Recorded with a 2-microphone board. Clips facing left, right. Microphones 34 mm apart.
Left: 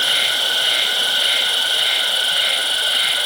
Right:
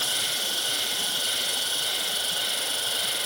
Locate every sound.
0.0 s an insect: 60° left (ahead or behind), 3 m